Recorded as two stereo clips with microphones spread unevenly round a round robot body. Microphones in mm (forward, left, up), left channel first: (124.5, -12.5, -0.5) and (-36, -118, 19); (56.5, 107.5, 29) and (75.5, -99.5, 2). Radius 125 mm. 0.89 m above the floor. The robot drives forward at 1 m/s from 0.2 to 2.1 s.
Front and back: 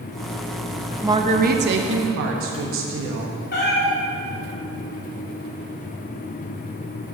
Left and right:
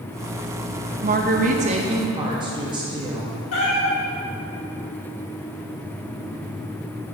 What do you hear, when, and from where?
1.0 s a woman speaking: 65° right, 0.7 m; by 3.4 s 150° right, 1.1 m
3.5 s a cat meowing: 90° left, 1.7 m